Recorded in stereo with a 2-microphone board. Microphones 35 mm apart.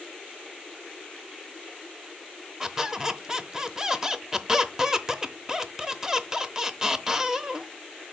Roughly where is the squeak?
Centre.